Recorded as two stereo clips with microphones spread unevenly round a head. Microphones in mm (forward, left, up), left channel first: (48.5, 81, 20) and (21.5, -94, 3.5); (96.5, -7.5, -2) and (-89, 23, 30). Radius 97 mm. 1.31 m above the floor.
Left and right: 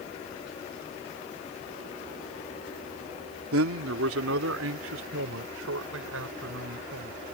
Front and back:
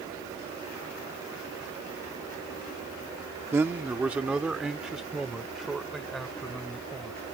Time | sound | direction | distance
3.5 | a man speaking | 110° right | ?